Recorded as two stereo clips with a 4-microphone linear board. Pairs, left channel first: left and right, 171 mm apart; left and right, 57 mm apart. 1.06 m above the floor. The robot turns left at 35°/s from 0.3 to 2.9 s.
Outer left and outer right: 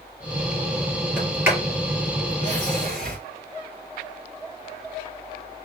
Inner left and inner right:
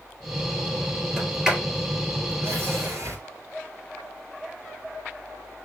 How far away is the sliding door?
About 2.5 m.